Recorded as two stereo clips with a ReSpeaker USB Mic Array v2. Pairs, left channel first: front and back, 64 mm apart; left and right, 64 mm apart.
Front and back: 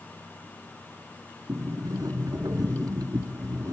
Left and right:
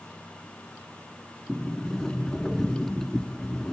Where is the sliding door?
175° left, 1.8 m.